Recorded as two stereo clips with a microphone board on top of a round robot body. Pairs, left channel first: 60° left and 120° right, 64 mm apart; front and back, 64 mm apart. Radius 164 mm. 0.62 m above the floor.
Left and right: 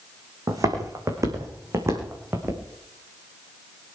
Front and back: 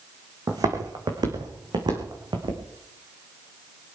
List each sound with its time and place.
0.5 s footsteps: 150° right, 3 m; by 2.6 s 175° right, 3.5 m